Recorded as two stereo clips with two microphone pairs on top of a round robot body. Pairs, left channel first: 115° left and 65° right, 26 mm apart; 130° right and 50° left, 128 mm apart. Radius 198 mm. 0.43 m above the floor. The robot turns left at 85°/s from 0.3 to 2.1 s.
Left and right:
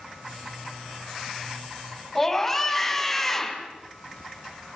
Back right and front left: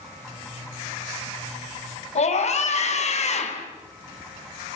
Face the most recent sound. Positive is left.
turn(degrees=-165)